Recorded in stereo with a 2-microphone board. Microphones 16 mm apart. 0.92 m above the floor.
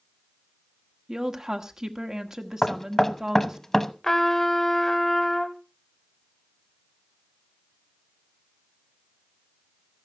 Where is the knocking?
30° left (ahead or behind), 0.8 m.